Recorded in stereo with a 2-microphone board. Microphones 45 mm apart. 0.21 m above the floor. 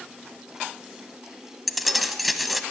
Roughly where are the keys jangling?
Centre.